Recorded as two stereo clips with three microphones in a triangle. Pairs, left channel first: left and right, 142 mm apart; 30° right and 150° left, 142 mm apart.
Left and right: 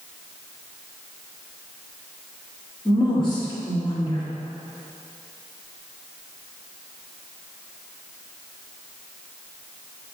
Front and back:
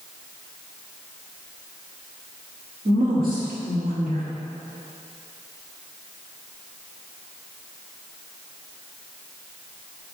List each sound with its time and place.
2.9 s a woman speaking: 145° left, 3 m